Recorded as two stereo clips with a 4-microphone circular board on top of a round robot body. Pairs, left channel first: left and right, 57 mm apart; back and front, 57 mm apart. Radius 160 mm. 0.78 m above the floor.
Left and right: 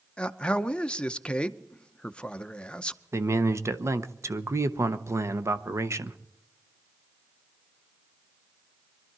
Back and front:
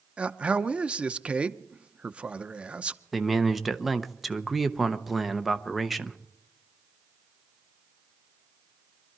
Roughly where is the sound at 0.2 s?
Ahead left.